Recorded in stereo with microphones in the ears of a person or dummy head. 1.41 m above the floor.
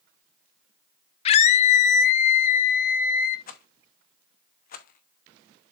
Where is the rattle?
50° left (ahead or behind), 0.9 m.